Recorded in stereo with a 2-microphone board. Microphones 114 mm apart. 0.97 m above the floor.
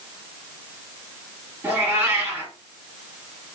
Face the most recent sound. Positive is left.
turn(degrees=-15)  # may be behind; listen again after turning